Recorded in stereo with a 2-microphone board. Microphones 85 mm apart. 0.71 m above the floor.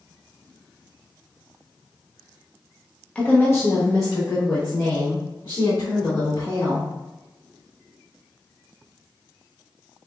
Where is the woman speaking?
15° left (ahead or behind), 0.9 m; by 6.9 s 60° left (ahead or behind), 2.5 m.